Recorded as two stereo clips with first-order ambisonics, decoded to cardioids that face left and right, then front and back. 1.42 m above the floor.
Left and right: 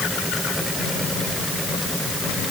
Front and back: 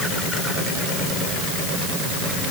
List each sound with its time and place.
Only background noise.